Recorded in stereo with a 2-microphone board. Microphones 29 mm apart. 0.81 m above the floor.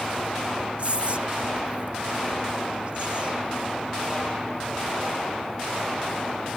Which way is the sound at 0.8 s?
45° right (ahead or behind).